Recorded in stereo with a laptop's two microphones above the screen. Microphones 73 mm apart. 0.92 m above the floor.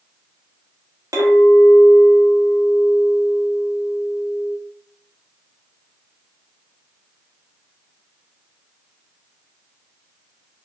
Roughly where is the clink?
Right.